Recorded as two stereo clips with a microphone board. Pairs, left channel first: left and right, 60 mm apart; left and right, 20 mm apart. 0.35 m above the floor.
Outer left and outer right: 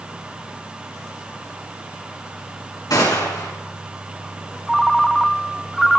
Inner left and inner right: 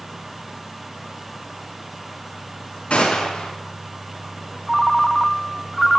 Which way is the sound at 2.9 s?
70° left (ahead or behind).